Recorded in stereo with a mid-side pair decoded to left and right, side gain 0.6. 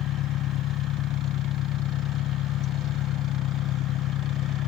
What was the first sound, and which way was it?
An engine running, 60° left.